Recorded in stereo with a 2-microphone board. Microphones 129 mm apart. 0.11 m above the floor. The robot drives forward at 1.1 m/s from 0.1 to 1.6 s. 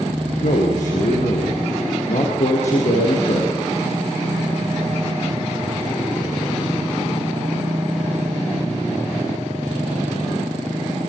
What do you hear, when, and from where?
0.4 s a man speaking: 70° left (ahead or behind), 4.5 m; by 3.6 s 60° left (ahead or behind), 4.5 m